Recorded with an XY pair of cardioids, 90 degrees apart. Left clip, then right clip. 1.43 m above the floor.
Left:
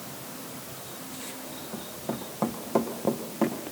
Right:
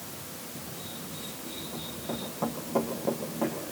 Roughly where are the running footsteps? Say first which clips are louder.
Left 2 dB; ahead left.